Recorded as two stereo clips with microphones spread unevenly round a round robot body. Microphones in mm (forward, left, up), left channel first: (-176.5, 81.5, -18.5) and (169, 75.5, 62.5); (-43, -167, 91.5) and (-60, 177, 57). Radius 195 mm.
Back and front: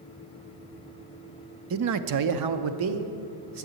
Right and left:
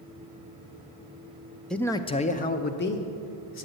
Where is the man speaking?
15° left, 0.6 m; by 3.7 s 30° right, 1.4 m.